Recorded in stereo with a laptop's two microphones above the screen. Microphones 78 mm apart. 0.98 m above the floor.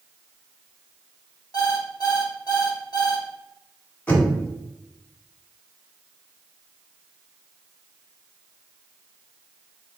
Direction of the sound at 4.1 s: 25° left (ahead or behind).